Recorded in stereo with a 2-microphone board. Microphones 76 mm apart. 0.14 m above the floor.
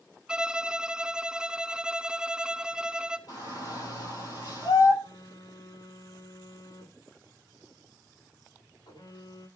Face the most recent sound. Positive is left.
turn(degrees=80)